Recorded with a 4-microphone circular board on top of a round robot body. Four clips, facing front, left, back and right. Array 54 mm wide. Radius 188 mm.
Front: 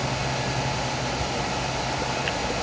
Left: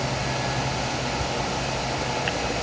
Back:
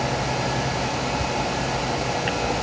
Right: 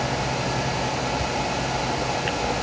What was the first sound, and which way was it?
Only background noise.